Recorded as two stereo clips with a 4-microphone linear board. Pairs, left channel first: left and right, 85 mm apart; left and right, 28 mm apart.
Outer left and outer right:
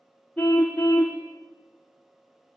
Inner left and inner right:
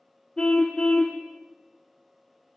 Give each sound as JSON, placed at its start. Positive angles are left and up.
{"t": 0.4, "sound": "a car horn", "side_deg": 15, "distance_m": 3.5}